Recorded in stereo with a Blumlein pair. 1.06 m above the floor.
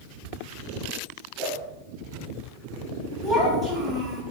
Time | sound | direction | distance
1.4 | a whoosh | 15° right | 1.2 m
3.2 | a child speaking | 10° right | 1.3 m